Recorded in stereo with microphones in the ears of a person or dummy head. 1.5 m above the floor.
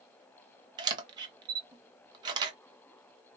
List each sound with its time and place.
0.8 s a camera shutter: 25° right (ahead or behind), 1.1 m